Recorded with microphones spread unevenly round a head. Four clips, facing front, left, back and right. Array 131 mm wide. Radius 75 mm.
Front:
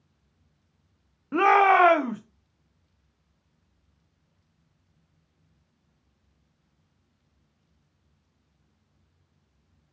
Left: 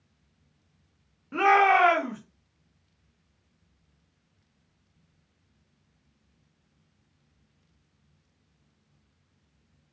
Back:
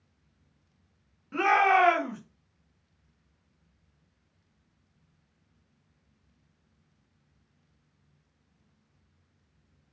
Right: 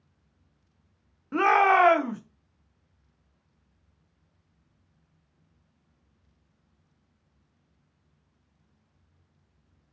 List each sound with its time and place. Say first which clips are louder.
1.3 s a shout: even, front 4 dB; 10° right, 0.6 m